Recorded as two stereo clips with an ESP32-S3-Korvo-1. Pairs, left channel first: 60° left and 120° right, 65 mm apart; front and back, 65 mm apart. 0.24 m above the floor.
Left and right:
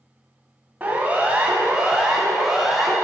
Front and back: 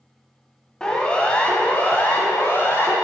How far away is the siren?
About 2.5 m.